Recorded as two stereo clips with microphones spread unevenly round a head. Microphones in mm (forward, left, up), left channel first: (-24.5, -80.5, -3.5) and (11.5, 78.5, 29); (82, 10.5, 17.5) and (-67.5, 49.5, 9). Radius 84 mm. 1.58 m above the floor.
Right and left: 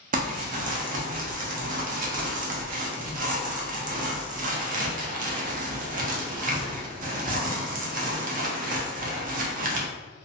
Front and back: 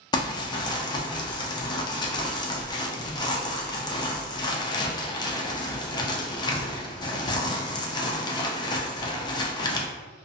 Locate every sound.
0.1 s crumpling: 45° left, 0.5 m